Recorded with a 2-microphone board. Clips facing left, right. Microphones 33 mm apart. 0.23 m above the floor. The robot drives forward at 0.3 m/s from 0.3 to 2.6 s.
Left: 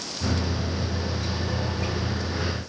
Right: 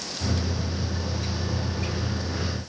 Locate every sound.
Only background noise.